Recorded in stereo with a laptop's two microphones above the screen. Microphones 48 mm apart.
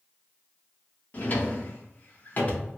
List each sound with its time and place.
1.1 s a drawer: 35° left (ahead or behind), 0.9 m